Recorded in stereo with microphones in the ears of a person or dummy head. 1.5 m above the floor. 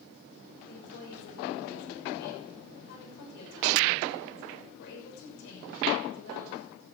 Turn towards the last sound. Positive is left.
turn(degrees=70)  # may be behind; listen again after turning